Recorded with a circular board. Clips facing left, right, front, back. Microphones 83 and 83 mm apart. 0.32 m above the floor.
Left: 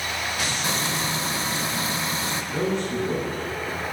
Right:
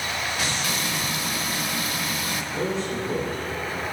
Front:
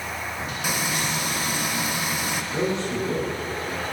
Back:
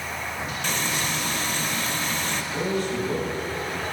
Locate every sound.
0.6 s frying: 70° left, 0.9 m
2.5 s a man speaking: 60° left, 3.5 m